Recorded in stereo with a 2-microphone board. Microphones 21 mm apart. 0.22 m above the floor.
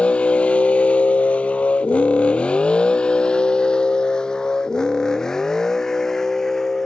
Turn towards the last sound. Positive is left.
turn(degrees=20)  # may be behind; listen again after turning